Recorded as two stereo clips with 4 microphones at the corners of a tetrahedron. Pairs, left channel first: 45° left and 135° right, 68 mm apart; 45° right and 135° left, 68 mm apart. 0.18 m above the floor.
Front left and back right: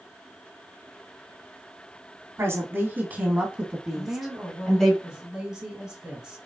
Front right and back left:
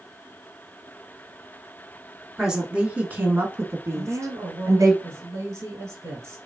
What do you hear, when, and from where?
2.4 s a woman speaking: 150° right, 1.2 m; by 4.9 s 125° left, 1.7 m
3.9 s a woman speaking: 150° left, 1.9 m